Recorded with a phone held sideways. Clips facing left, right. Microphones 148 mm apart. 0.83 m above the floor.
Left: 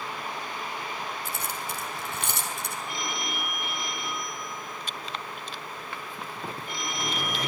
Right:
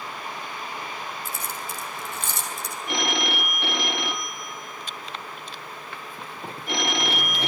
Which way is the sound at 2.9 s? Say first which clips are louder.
Right 11 dB; 85° right.